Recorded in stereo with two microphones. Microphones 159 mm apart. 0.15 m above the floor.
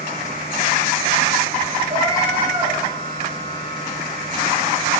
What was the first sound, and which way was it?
A cat meowing, 30° right (ahead or behind).